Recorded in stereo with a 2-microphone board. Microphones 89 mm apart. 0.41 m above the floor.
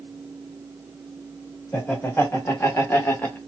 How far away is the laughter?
About 1.4 m.